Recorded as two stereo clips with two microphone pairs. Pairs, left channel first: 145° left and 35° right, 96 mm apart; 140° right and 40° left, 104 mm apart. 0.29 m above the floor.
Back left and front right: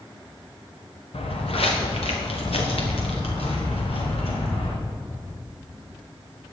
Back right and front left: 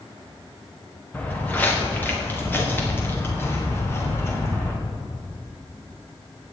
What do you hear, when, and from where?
1.1 s footsteps: 145° left, 2.5 m; by 4.8 s 155° left, 4.5 m